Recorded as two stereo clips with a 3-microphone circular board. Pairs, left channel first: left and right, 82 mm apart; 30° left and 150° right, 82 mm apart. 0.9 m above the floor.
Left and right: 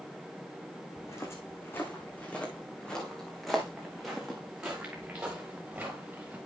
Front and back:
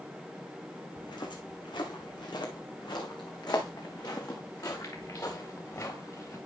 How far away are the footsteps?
About 2 m.